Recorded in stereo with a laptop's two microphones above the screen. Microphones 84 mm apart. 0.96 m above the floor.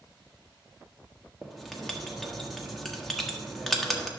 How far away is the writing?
About 1.3 m.